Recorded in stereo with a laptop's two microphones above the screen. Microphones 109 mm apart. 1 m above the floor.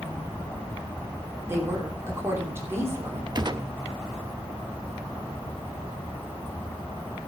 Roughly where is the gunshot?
Right.